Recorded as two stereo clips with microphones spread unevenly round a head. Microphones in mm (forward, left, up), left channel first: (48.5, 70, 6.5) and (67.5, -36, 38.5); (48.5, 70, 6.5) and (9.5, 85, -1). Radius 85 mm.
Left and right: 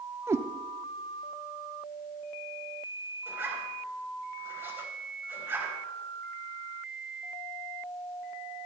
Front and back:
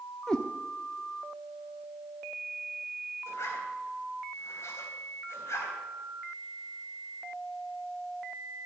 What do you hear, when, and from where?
0.3 s a cat meowing: 75° right, 0.7 m
3.3 s a zipper: 10° right, 4 m